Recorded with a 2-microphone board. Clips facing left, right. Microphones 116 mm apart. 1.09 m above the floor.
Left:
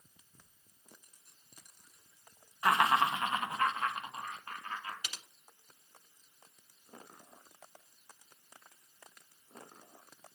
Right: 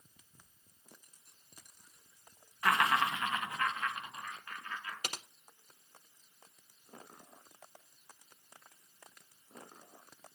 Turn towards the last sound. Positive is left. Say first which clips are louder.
# right 6 dB
turn(degrees=-55)  # may be behind; listen again after turning